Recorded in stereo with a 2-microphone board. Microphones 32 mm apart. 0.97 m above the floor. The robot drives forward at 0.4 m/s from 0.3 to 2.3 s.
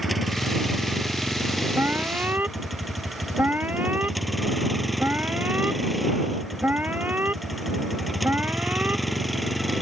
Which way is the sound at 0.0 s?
5° right (ahead or behind).